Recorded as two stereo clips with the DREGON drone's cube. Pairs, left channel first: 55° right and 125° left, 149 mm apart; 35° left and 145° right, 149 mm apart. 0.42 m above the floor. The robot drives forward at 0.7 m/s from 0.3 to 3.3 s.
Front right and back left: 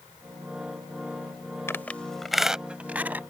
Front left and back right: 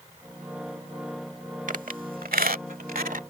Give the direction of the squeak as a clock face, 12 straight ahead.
4 o'clock.